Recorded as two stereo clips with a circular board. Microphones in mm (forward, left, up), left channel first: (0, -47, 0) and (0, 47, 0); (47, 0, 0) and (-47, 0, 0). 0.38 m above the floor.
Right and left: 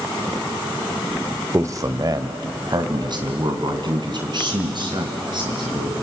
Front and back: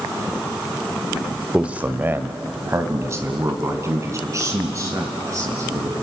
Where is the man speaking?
110° left, 1.0 m; by 5.9 s 125° left, 5.5 m.